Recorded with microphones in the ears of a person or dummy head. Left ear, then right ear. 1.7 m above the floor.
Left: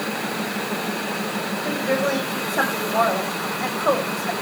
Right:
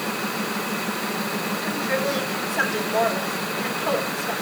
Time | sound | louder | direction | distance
1.6 | a woman speaking | left 3 dB | 50° left (ahead or behind) | 8 m